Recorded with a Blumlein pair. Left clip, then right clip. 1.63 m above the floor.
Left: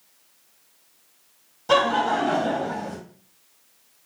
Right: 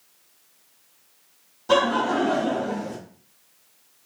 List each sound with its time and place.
1.7 s laughter: 10° left, 0.8 m